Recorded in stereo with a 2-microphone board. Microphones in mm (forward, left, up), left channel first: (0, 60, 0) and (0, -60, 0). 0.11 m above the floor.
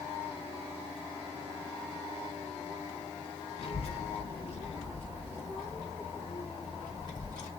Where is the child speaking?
55° left (ahead or behind), 1.4 m; by 7.5 s 35° left (ahead or behind), 3 m.